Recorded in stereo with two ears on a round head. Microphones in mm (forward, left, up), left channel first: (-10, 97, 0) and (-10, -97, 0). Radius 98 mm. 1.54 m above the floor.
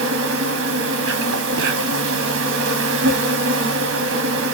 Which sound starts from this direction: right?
An insect, at 0.0 s.